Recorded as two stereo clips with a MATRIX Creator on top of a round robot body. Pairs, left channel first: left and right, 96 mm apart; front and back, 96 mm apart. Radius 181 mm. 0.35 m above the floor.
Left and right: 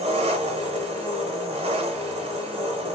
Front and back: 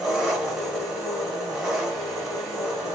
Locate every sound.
0.0 s an engine running: 95° right, 0.7 m